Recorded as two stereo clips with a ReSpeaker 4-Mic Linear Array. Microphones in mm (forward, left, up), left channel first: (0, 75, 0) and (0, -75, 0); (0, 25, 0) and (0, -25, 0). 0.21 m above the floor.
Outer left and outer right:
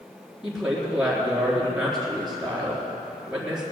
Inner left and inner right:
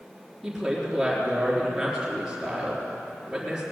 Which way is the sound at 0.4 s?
5° right (ahead or behind).